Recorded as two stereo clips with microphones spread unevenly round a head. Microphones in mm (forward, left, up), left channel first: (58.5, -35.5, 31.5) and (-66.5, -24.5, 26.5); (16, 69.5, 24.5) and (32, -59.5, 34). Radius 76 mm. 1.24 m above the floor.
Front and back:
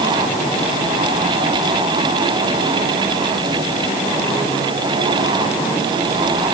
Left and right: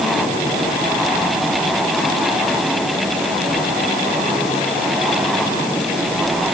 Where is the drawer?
I don't hear a drawer.